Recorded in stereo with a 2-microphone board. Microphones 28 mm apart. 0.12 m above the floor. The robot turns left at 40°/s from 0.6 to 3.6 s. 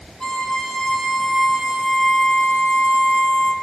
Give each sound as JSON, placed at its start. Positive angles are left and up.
{"t": 0.2, "sound": "a violin", "azimuth_deg": 30, "distance_m": 0.6}